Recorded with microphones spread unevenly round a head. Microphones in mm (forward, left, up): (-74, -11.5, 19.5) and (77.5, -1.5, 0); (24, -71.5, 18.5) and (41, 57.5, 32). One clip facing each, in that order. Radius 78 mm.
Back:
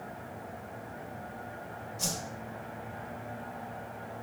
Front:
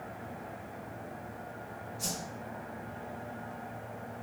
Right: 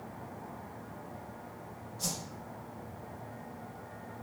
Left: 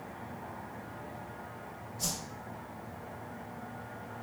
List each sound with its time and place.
2.0 s a whoosh: 165° left, 1.3 m